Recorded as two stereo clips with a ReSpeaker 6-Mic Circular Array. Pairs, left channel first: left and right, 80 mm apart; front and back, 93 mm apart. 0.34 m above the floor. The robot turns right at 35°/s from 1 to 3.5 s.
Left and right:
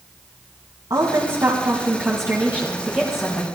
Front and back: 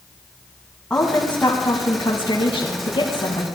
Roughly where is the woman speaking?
Right.